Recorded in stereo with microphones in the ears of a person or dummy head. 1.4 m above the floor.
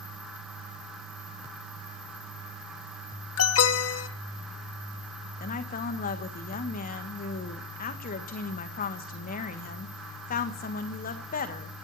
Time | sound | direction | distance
3.4 | an alarm | 80° left | 1.2 m
5.4 | a woman speaking | 55° left (ahead or behind) | 1.8 m